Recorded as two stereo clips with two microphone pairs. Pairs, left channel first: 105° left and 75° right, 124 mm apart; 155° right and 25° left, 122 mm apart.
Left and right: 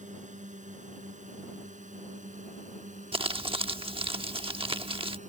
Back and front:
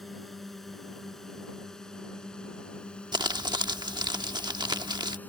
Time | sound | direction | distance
0.0 | a drone | 65° right | ?
3.1 | crumpling | 30° right | ?